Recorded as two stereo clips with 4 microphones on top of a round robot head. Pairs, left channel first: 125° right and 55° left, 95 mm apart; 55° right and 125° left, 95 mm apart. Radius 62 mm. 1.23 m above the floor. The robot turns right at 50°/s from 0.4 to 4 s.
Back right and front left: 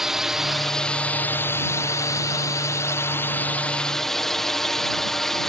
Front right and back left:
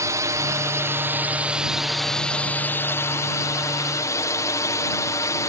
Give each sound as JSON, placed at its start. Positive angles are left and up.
{"t": 0.0, "sound": "a drone", "azimuth_deg": 140}